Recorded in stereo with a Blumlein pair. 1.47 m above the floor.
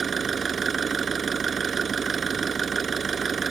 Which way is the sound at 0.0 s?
20° right.